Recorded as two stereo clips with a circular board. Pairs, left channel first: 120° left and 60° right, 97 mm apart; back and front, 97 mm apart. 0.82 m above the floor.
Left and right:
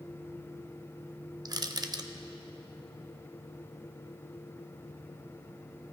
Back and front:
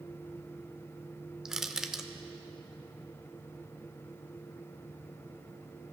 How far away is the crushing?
About 0.5 m.